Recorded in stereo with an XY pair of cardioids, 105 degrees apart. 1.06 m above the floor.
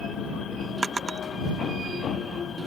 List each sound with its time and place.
0.8 s a drawer: 25° right